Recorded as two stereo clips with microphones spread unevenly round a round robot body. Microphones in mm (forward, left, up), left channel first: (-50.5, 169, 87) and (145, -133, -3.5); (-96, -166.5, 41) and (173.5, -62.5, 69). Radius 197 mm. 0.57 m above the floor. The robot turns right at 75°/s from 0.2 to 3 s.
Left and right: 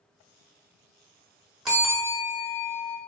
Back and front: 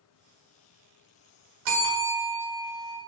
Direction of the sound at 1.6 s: 35° left.